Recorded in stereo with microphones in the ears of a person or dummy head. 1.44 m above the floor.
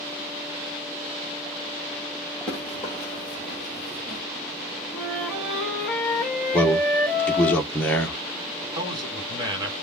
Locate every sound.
2.5 s running footsteps: 10° right (ahead or behind), 1.8 m; by 4.2 s 25° right (ahead or behind), 1.6 m
4.9 s a flute: 5° left (ahead or behind), 2.0 m
6.5 s a man speaking: 10° left (ahead or behind), 1.0 m
8.8 s a man speaking: 25° right (ahead or behind), 1.9 m